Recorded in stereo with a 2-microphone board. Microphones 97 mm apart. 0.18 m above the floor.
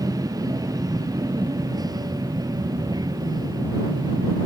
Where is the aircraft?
40° right (ahead or behind); by 4.5 s 45° right (ahead or behind).